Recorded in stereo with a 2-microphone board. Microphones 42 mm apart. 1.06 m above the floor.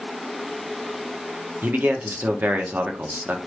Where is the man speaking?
50° right (ahead or behind), 0.7 m.